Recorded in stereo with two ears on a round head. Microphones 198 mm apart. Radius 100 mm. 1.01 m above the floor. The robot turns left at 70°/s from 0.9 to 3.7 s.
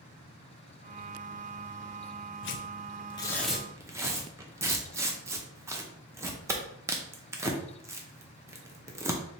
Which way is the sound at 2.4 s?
50° left (ahead or behind).